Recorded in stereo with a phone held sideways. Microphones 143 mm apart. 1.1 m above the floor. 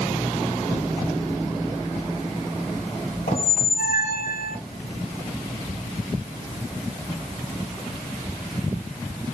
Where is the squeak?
70° left (ahead or behind), 0.9 m.